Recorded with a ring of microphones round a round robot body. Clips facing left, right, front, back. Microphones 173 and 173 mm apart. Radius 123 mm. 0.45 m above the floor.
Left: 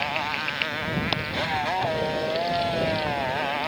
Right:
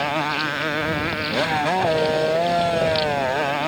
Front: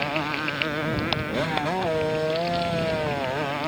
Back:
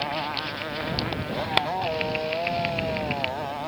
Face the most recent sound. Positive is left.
turn(degrees=-55)